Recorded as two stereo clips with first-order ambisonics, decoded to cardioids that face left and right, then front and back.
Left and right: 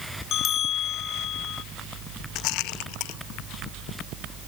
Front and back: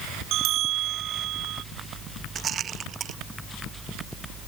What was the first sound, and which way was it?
A bell, 140° left.